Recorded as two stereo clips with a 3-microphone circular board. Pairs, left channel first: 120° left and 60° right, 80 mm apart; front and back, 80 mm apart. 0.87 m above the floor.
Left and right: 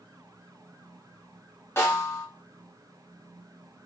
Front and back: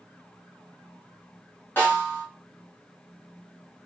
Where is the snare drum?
60° left, 1.4 m.